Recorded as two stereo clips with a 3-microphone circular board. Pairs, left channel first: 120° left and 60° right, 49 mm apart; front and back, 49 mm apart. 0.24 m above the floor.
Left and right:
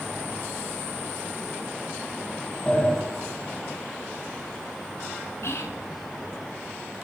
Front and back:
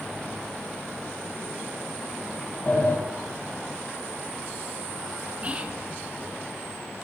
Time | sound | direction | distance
2.7 | a sliding door | 50° left | 4 m
5.4 | whispering | 125° left | 3 m